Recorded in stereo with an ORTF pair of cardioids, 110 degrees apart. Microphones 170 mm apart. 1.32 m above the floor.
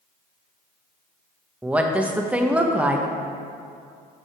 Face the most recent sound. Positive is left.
turn(degrees=-10)